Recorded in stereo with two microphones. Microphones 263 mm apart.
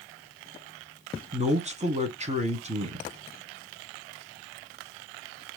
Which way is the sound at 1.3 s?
25° right (ahead or behind).